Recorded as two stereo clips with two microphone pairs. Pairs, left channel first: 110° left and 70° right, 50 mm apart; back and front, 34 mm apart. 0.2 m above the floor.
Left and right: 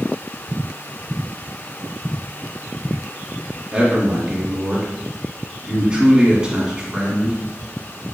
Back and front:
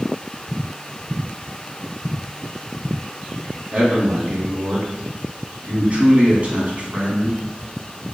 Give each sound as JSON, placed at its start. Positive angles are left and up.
{"t": 3.7, "sound": "a man speaking", "azimuth_deg": -5, "distance_m": 1.4}